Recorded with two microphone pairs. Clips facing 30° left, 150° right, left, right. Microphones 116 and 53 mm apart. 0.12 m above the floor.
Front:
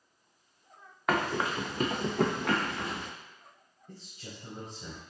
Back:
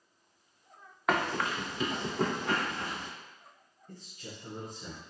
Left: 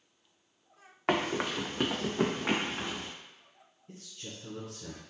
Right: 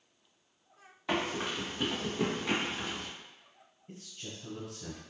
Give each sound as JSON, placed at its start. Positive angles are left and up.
{"t": 1.1, "sound": "running footsteps", "azimuth_deg": 120, "distance_m": 0.6}
{"t": 3.9, "sound": "a man speaking", "azimuth_deg": -35, "distance_m": 1.4}